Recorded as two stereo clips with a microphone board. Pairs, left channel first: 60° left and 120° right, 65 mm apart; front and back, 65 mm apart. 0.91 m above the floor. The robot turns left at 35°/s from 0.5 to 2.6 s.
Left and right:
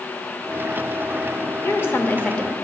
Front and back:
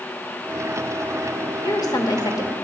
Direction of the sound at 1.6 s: 15° left.